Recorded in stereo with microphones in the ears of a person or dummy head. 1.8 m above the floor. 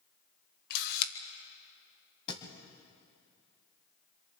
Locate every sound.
0.7 s a camera shutter: 55° left (ahead or behind), 1.4 m
2.3 s a thud: 25° left (ahead or behind), 3.5 m